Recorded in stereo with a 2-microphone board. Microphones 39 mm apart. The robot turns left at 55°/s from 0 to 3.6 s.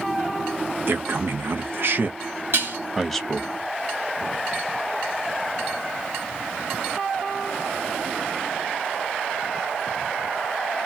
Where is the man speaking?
60° right (ahead or behind), 0.8 m; by 3.5 s 25° left (ahead or behind), 0.8 m.